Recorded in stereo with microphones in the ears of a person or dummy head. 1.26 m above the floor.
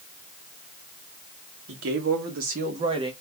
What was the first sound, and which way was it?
A man speaking, 80° right.